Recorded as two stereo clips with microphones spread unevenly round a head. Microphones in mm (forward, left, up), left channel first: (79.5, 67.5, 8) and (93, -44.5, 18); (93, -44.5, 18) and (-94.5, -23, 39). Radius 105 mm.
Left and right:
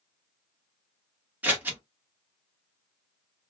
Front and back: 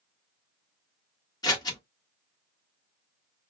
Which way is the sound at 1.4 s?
60° right.